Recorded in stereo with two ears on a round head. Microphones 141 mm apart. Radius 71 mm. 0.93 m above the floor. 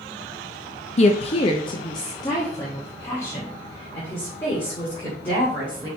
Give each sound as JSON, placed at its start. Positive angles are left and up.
{"t": 1.0, "sound": "a woman speaking", "side_deg": 40, "distance_m": 0.5}